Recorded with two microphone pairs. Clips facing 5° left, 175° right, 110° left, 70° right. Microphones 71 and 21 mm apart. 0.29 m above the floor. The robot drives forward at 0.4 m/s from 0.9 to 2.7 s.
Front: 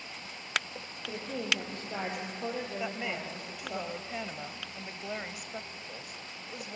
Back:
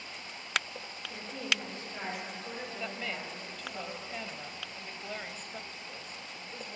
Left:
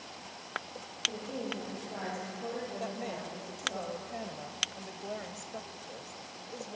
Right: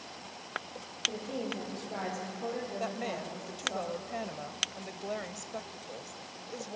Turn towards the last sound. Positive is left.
turn(degrees=-60)